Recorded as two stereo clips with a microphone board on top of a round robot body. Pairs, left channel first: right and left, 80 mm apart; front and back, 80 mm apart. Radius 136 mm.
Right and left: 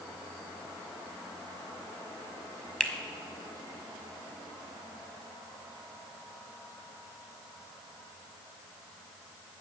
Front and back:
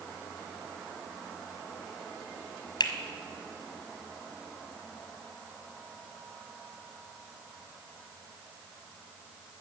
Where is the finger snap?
10° right, 1.7 m.